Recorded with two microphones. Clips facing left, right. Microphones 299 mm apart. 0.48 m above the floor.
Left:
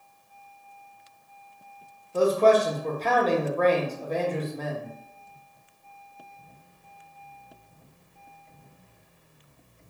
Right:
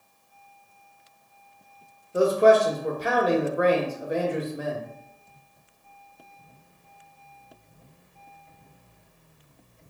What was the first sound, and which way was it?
A man speaking, 15° right (ahead or behind).